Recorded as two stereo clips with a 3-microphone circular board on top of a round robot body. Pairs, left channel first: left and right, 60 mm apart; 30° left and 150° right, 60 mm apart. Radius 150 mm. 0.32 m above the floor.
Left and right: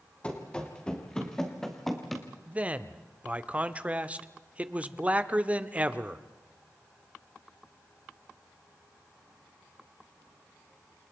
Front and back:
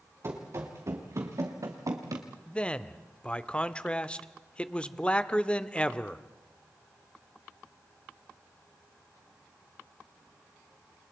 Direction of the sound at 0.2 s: 160° left.